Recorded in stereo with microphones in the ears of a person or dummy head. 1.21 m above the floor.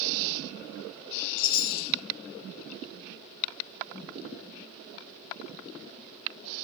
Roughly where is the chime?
Left.